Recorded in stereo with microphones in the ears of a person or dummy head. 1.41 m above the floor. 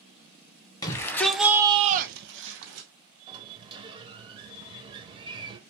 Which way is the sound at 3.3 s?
20° right (ahead or behind).